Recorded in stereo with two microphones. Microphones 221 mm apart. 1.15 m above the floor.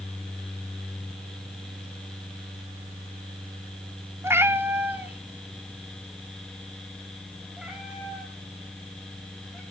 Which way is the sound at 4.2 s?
10° right (ahead or behind).